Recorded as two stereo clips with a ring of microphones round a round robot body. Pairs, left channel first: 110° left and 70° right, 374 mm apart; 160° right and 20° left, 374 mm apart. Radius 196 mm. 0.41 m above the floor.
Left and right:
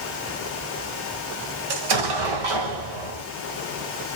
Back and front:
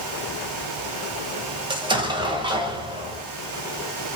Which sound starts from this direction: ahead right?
An explosion, at 1.7 s.